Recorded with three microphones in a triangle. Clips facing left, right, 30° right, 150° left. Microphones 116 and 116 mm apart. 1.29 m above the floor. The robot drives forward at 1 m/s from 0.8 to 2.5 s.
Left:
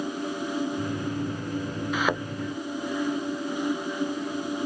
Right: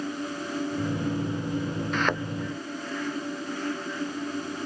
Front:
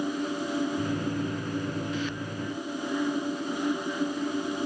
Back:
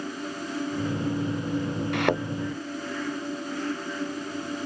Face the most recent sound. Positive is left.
turn(degrees=175)